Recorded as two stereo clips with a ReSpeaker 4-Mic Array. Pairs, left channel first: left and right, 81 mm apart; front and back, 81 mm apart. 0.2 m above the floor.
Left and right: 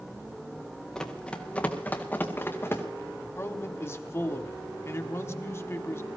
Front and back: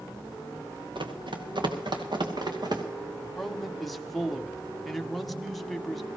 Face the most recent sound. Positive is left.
turn(degrees=90)